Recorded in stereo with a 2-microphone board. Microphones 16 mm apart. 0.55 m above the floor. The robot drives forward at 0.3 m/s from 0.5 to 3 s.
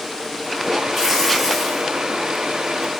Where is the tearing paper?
20° right (ahead or behind), 3 m.